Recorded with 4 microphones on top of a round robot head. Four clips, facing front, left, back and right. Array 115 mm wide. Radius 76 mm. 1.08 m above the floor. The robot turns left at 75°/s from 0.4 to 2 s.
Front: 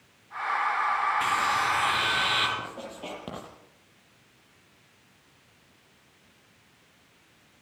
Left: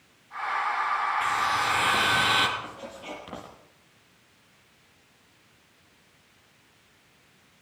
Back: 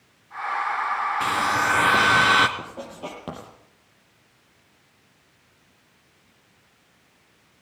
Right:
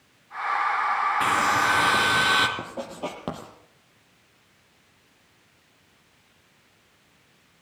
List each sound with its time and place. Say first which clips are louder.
1.2 s a hair dryer: right 4 dB, back 3 dB; 110° right, 2.5 m; by 2.5 s 170° right, 2.5 m
2.6 s writing: right 7 dB, back 2 dB; 95° right, 7 m